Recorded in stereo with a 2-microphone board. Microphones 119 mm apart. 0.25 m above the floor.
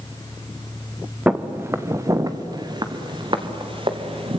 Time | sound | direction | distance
1.3 | footsteps | 10° right (ahead or behind) | 1.5 m